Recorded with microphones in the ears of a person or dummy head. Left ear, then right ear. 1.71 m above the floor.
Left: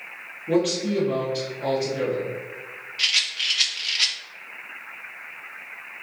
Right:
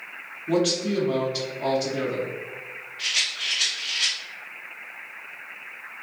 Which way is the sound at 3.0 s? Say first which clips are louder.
Left 3 dB; 55° left (ahead or behind).